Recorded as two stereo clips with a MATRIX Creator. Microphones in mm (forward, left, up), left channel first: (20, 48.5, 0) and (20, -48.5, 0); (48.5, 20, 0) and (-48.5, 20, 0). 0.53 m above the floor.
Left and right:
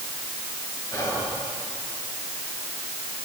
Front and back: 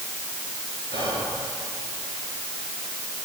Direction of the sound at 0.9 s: 25° left.